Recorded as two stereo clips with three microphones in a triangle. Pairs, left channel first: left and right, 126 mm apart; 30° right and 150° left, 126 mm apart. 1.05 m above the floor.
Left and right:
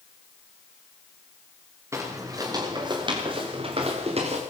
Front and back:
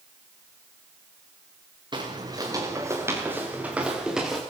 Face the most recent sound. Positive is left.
turn(degrees=-120)